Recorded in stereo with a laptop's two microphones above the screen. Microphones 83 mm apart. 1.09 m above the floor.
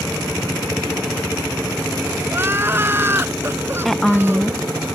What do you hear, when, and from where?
2.3 s crying: 25° right (ahead or behind)
3.9 s a woman speaking: 5° left (ahead or behind)